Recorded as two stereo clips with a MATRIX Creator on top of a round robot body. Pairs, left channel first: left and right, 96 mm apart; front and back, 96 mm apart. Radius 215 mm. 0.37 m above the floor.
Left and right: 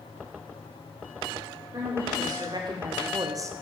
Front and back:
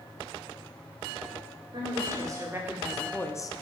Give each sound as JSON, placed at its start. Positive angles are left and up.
{"t": 1.7, "sound": "a woman speaking", "azimuth_deg": -140, "distance_m": 2.5}